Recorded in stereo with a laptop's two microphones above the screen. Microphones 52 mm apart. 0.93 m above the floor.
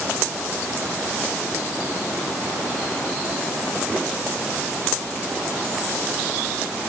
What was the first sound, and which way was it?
Only background noise.